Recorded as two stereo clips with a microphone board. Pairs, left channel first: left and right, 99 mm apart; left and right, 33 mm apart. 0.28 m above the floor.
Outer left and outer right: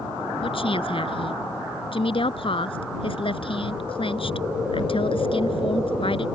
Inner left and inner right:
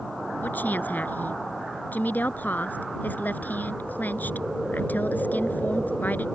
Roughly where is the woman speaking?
Left.